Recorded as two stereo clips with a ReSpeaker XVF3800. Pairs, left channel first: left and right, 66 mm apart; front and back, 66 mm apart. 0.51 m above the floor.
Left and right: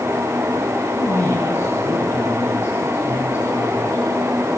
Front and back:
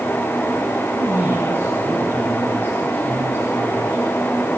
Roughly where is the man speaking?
Behind left.